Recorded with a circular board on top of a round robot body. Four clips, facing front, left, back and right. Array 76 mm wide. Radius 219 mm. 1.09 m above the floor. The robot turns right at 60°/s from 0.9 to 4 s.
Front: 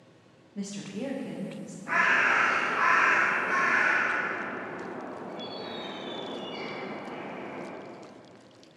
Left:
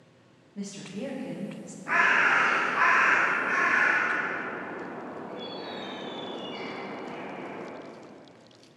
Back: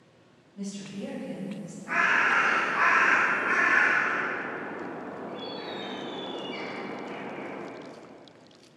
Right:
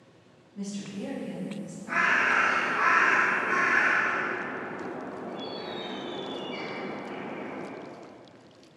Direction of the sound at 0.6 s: 25° left.